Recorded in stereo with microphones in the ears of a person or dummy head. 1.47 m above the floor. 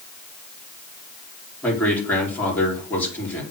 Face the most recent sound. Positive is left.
turn(degrees=10)  # may be behind; listen again after turning